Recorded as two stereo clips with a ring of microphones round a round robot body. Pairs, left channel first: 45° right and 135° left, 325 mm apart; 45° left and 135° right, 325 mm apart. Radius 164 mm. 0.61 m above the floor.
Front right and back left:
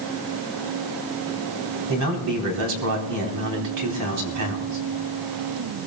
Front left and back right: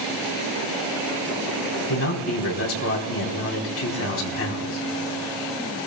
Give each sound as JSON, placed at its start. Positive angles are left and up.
{"t": 1.9, "sound": "a man speaking", "azimuth_deg": 95, "distance_m": 3.5}